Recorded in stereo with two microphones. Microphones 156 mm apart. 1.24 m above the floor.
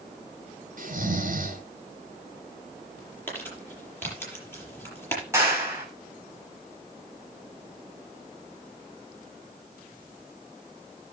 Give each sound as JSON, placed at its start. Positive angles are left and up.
{"t": 0.8, "sound": "snoring", "side_deg": -65, "distance_m": 3.0}
{"t": 3.3, "sound": "crumpling", "side_deg": 15, "distance_m": 6.0}
{"t": 5.3, "sound": "a clap", "side_deg": -20, "distance_m": 5.5}